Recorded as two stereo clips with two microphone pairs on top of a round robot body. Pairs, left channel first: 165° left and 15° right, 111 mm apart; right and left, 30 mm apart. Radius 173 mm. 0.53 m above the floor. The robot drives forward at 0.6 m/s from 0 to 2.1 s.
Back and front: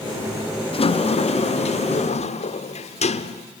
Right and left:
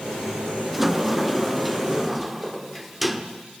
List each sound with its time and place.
0.7 s a sliding door: 170° left, 0.6 m; by 3.5 s 175° left, 1.3 m